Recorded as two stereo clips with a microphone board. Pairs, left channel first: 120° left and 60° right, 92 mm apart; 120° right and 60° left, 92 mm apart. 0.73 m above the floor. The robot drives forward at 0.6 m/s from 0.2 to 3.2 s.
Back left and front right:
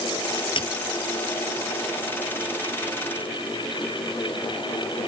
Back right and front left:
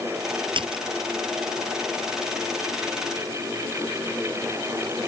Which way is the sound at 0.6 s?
95° left.